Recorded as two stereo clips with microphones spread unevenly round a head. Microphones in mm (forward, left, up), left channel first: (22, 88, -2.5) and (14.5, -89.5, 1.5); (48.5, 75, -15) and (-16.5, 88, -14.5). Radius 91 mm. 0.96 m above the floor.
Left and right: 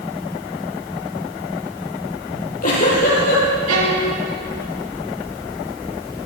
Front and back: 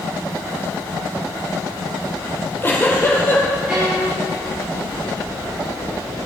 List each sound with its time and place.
2.3 s a giggle: 45° left, 9.5 m
3.7 s a violin: 110° right, 9 m